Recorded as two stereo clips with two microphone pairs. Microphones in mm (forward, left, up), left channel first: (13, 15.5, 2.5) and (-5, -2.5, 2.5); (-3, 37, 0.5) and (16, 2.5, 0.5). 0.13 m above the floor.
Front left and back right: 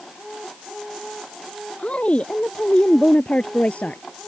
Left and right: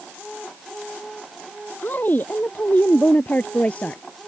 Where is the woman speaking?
85° left; by 4.0 s 65° left.